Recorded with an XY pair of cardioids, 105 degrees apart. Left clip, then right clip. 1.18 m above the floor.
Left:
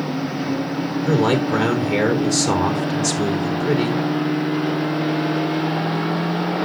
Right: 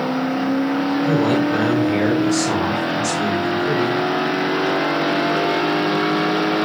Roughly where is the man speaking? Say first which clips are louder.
Left 2 dB; ahead left.